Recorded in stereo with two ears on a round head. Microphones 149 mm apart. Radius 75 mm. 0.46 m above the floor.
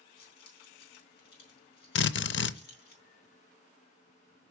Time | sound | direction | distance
0.2 | keys jangling | 65° left (ahead or behind) | 3.5 m
1.9 | a drill | 75° left (ahead or behind) | 0.6 m